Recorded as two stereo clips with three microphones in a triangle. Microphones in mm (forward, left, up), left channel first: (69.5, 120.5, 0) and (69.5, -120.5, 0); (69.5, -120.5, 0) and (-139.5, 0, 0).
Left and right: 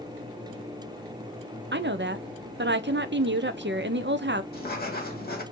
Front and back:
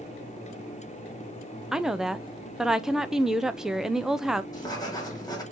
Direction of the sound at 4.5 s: 40° left.